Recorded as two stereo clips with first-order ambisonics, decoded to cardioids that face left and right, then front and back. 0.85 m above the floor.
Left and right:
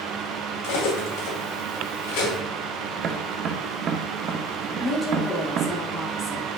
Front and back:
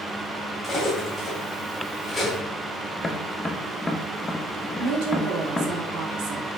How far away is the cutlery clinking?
About 2.5 m.